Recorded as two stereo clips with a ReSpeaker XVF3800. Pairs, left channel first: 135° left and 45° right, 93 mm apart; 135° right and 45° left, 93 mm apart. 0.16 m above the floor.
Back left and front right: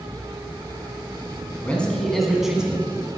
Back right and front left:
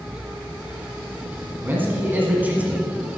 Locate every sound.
1.6 s a man speaking: 80° left, 1.7 m; by 3.1 s 10° right, 1.7 m